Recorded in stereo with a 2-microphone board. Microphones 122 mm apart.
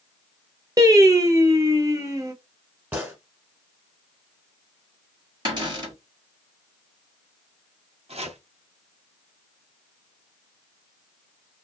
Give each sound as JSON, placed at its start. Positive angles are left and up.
{"t": 0.8, "sound": "singing", "side_deg": -30, "distance_m": 0.6}
{"t": 2.9, "sound": "a gunshot", "side_deg": -15, "distance_m": 1.3}
{"t": 5.5, "sound": "a cupboard door", "side_deg": -35, "distance_m": 1.7}
{"t": 8.1, "sound": "chopping", "side_deg": -60, "distance_m": 0.8}